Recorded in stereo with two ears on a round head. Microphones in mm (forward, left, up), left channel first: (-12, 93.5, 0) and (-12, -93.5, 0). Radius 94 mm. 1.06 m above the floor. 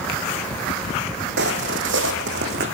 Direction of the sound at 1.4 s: 55° right (ahead or behind).